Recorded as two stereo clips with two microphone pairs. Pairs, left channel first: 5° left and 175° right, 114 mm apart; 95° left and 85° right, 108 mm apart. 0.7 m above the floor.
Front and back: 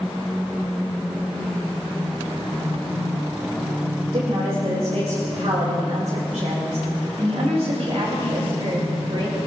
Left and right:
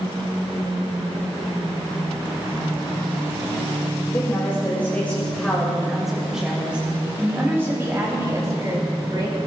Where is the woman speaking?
155° left, 3 m; by 9.4 s 135° right, 4 m.